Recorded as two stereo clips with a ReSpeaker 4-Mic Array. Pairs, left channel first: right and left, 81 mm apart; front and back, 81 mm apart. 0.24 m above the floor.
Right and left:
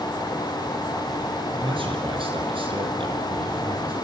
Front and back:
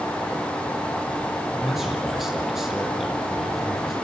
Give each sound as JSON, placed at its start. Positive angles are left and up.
{"t": 1.5, "sound": "a man speaking", "azimuth_deg": 95, "distance_m": 6.5}